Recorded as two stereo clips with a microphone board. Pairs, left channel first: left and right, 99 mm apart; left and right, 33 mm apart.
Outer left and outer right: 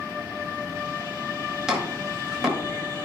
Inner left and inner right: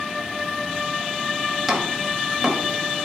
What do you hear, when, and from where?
1.7 s chopping: 5° right (ahead or behind), 1.6 m